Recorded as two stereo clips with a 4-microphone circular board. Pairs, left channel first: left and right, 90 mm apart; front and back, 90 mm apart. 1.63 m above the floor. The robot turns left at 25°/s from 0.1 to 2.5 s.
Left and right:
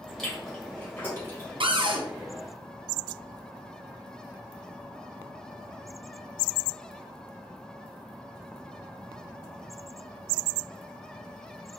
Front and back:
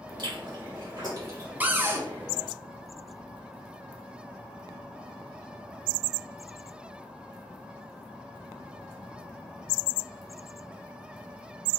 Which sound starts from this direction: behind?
Chewing, at 0.2 s.